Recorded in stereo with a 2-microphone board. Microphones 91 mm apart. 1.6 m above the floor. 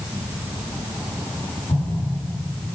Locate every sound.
1.7 s an explosion: 75° left (ahead or behind), 5.5 m